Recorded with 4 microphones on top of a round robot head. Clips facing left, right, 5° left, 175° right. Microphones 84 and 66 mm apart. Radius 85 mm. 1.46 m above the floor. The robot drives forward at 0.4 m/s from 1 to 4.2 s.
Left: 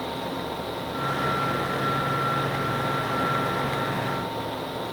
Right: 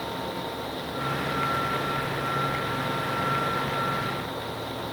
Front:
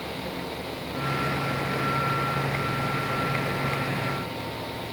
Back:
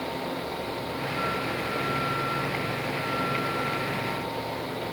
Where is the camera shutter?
No camera shutter in this recording.